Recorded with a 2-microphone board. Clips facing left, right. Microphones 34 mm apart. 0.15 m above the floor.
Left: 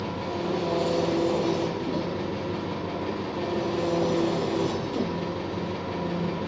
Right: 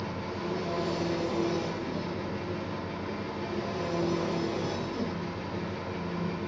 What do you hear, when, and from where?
0.0 s an engine running: 70° left (ahead or behind), 3 m